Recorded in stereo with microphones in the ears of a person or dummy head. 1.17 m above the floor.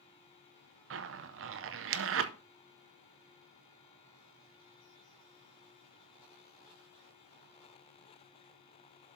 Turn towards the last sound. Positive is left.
turn(degrees=-55)  # may be behind; listen again after turning